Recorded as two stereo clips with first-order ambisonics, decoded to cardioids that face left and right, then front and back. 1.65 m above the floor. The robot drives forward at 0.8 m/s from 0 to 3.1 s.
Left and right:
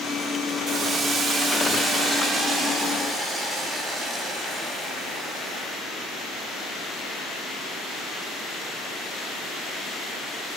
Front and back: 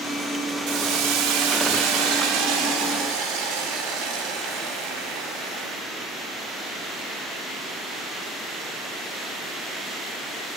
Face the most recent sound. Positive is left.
turn(degrees=-165)